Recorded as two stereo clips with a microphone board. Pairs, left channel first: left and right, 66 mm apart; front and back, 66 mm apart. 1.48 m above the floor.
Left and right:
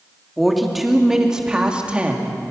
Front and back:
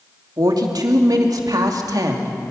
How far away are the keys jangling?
I don't hear keys jangling.